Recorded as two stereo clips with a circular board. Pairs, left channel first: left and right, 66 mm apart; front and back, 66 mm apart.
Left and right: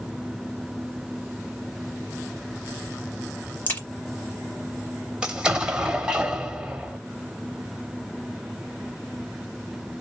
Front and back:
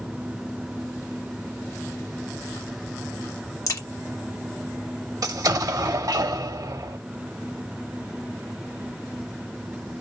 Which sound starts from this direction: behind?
An explosion, at 5.2 s.